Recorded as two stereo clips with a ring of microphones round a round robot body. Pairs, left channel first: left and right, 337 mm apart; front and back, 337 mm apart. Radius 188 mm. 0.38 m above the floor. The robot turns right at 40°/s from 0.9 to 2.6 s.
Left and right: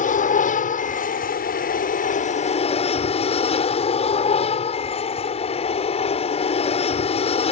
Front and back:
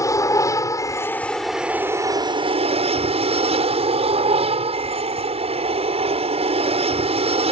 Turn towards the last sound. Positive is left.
turn(degrees=135)